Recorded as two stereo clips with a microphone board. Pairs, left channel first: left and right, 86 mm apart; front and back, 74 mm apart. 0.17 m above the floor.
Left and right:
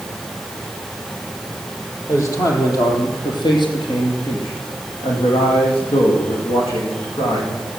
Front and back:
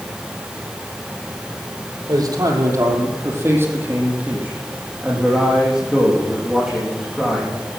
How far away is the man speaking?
About 4.5 m.